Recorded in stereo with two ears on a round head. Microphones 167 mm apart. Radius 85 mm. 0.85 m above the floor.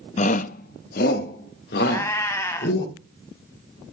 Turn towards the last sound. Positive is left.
turn(degrees=15)  # may be behind; listen again after turning